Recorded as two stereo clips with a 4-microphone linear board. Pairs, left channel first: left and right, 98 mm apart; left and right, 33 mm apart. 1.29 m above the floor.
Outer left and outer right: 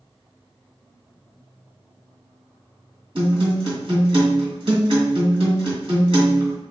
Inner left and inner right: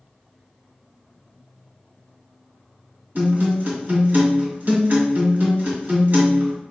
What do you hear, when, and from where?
3.1 s a guitar: 60° right (ahead or behind), 1.6 m